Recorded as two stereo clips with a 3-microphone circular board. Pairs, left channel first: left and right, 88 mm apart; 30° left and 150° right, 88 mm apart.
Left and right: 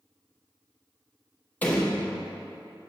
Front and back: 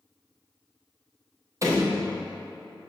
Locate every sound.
1.6 s a door slam: 160° left, 2 m